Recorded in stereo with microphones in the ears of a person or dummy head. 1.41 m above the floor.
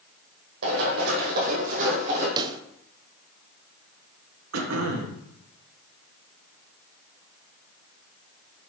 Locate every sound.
0.6 s running footsteps: 60° right (ahead or behind), 2.5 m; by 2.3 s 25° right (ahead or behind), 3.5 m
2.4 s a pop: 15° right (ahead or behind), 0.5 m
4.5 s throat clearing: 85° right, 1.0 m